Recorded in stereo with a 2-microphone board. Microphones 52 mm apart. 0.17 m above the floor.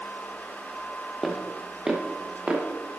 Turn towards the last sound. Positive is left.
turn(degrees=-30)  # may be behind; listen again after turning